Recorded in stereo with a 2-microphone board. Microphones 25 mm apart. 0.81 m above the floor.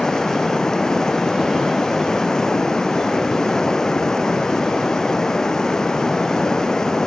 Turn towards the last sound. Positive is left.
turn(degrees=25)  # may be behind; listen again after turning